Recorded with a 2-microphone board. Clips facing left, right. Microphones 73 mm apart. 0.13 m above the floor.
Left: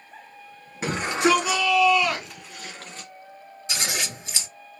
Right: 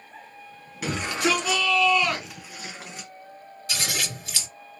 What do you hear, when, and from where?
0.8 s a shout: 30° left (ahead or behind), 1.3 m; by 3.1 s 15° right (ahead or behind), 1.7 m
3.7 s scissors: 20° left (ahead or behind), 2.5 m